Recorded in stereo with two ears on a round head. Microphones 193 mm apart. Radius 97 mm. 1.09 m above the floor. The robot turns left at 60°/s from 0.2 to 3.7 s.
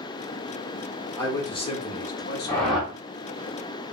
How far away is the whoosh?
About 1.0 m.